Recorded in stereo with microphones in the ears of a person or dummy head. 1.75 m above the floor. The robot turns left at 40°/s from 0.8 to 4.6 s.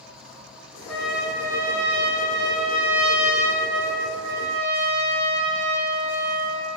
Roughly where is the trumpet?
Ahead.